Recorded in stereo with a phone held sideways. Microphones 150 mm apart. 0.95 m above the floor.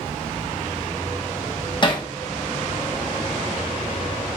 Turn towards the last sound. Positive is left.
turn(degrees=35)  # may be behind; listen again after turning